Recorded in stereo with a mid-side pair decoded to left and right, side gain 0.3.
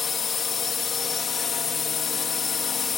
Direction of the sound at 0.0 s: 60° left.